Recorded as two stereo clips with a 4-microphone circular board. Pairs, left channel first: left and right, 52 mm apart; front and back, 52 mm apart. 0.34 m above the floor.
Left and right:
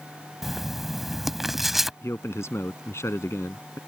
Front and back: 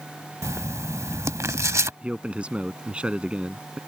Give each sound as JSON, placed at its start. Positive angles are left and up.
{"t": 0.4, "sound": "writing", "azimuth_deg": -175}
{"t": 2.0, "sound": "a man speaking", "azimuth_deg": 115}